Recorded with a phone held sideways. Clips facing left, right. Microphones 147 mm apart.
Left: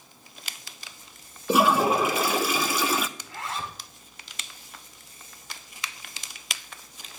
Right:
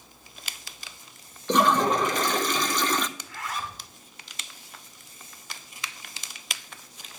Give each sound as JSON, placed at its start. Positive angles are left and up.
{"t": 1.5, "sound": "a toilet flushing", "side_deg": 10, "distance_m": 0.5}
{"t": 3.2, "sound": "a zipper", "side_deg": 25, "distance_m": 1.3}